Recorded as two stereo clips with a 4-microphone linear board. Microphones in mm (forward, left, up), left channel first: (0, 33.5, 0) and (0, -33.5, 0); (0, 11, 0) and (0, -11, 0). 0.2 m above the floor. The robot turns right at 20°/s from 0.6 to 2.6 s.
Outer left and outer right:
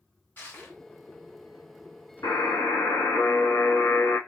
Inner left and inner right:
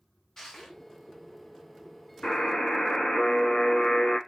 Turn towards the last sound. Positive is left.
turn(degrees=60)  # may be behind; listen again after turning